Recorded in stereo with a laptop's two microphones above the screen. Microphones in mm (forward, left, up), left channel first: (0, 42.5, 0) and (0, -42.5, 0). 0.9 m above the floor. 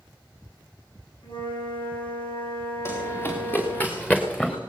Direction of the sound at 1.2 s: 85° left.